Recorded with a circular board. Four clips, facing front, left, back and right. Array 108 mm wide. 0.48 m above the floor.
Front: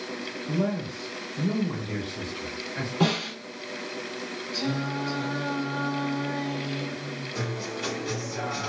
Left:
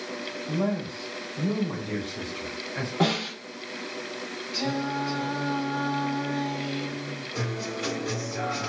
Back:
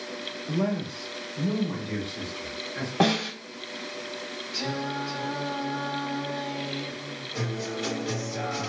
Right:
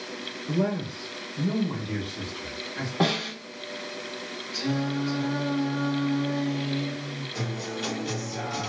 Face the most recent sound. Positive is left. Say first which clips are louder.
# left 2 dB, back 2 dB
turn(degrees=100)